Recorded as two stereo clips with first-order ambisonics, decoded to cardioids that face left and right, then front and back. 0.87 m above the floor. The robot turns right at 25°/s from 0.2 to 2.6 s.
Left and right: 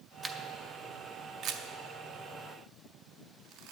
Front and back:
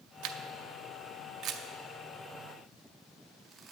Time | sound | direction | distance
0.2 | a camera shutter | 165° right | 0.5 m